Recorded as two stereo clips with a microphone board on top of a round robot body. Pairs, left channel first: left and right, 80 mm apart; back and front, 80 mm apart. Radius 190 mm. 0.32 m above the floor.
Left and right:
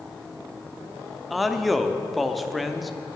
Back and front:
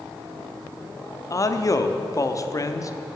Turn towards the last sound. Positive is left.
turn(degrees=180)